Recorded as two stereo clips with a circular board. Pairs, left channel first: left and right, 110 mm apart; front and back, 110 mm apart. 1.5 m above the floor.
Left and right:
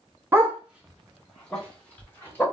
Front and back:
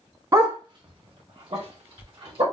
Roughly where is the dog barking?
Behind right.